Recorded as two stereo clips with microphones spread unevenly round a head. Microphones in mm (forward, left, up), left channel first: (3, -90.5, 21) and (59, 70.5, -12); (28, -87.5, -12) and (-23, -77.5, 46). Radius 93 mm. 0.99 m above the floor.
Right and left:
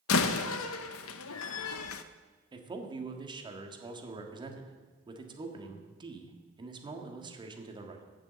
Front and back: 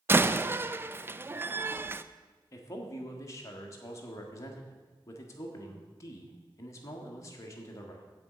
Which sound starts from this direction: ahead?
A man speaking, at 2.5 s.